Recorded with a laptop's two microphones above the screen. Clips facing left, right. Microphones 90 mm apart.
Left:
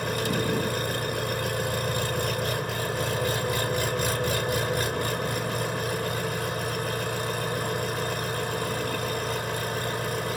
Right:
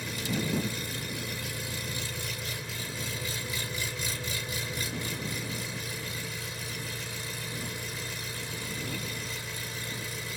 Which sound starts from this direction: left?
An engine running, at 0.0 s.